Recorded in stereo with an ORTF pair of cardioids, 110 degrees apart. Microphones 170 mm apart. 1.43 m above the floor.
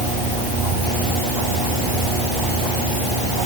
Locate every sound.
Only background noise.